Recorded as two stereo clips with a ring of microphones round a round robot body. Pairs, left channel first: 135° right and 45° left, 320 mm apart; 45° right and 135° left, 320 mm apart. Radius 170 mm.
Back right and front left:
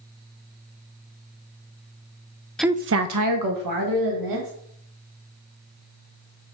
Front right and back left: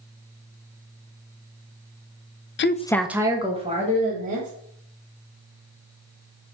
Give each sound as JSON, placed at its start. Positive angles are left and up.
{"t": 2.6, "sound": "a woman speaking", "azimuth_deg": -50, "distance_m": 0.6}